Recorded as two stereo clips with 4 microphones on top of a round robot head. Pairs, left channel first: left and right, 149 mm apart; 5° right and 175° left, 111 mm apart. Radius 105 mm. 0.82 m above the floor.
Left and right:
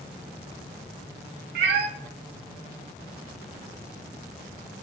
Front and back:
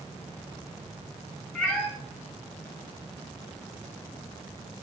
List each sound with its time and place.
1.6 s a cat meowing: 90° right, 0.8 m